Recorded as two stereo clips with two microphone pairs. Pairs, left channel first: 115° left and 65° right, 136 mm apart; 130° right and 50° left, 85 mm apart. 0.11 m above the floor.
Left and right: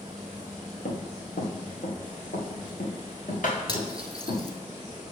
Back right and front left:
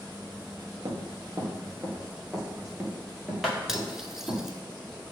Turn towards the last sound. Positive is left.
turn(degrees=130)